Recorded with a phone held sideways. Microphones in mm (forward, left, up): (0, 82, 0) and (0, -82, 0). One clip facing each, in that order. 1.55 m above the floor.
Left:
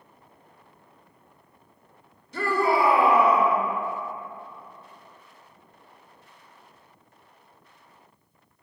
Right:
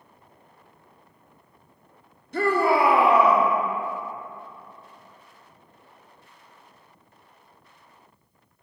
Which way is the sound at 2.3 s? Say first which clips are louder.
Right 2 dB; 55° right (ahead or behind).